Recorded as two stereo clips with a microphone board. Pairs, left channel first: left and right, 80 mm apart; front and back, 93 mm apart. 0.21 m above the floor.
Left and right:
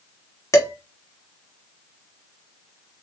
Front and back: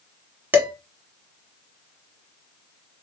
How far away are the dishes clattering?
About 0.9 m.